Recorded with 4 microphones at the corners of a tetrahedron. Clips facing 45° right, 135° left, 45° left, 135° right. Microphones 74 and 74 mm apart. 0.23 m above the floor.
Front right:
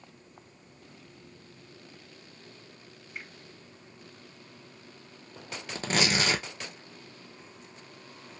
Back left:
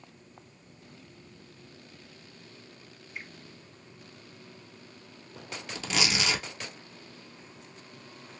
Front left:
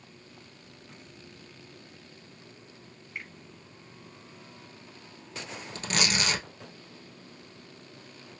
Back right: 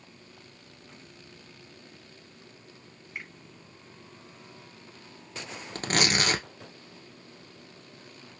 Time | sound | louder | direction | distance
3.1 | a finger snap | even, even | 60° right | 2.0 m
5.8 | tearing paper | front right 3 dB, back right 3 dB | 90° right | 0.8 m